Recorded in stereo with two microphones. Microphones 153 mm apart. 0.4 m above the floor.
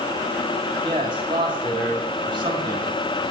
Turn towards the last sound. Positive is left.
turn(degrees=-30)  # may be behind; listen again after turning